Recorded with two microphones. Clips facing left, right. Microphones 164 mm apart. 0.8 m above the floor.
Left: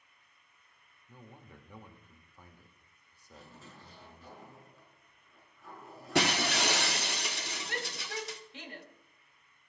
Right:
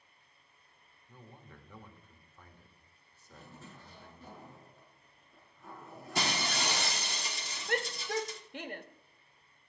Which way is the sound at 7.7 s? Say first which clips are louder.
Right 9 dB; 55° right (ahead or behind).